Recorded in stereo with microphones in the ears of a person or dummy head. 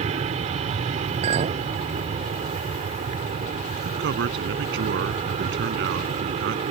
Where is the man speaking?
75° right (ahead or behind).